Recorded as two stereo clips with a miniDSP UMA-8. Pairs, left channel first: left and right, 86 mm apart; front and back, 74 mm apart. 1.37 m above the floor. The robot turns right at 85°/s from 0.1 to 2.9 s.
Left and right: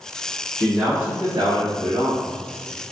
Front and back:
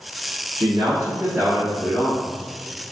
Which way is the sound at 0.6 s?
175° left.